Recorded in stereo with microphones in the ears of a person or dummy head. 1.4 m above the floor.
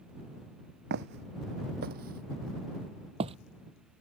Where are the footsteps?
55° right (ahead or behind); by 3.4 s 25° right (ahead or behind).